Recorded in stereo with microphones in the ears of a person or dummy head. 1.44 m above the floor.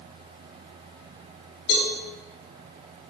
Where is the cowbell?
75° left (ahead or behind), 5.5 m.